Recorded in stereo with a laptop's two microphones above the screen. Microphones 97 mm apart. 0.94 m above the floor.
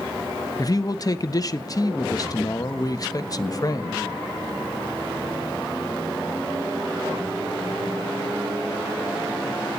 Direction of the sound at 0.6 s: 40° left (ahead or behind).